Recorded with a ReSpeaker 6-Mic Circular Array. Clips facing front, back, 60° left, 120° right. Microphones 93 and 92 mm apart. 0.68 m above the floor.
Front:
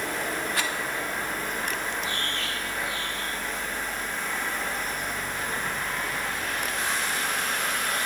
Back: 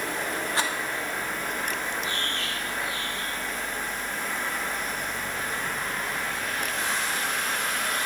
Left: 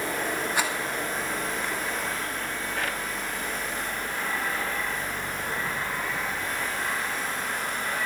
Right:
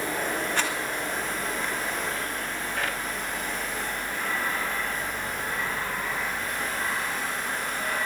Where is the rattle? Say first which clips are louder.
Back 4 dB, left 2 dB; 135° left, 1.3 m.